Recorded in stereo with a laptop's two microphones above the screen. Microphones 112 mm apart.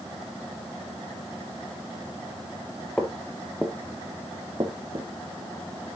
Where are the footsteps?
5° left (ahead or behind), 1.2 m; by 5.1 s 50° right (ahead or behind), 1.4 m.